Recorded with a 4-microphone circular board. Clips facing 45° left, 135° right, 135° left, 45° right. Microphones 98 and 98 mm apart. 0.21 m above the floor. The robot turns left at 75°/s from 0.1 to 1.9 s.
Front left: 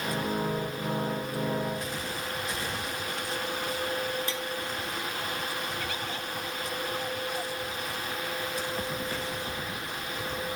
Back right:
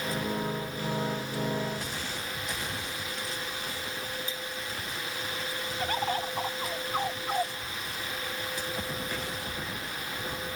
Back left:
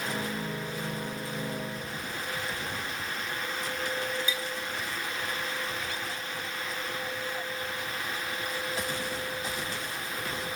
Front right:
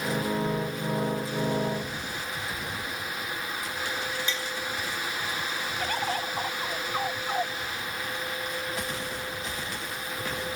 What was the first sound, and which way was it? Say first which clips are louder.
Tapping: front left 4 dB, front right 1 dB; 55° left.